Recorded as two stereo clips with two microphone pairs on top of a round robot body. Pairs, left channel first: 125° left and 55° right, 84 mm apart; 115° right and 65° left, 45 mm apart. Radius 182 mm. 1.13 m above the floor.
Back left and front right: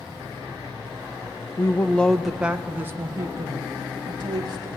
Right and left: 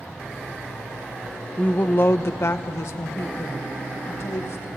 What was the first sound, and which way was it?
A woman speaking, straight behind.